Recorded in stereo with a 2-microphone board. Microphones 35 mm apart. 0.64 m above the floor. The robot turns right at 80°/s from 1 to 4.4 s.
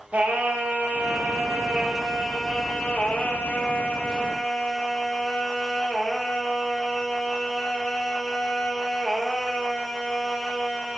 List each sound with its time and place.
0.1 s singing: 110° right, 1.8 m; by 11.0 s 165° left, 1.8 m